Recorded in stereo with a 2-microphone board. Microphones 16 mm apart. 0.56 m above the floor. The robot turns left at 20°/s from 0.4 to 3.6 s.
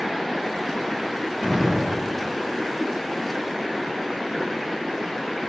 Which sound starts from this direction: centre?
A gunshot, at 1.4 s.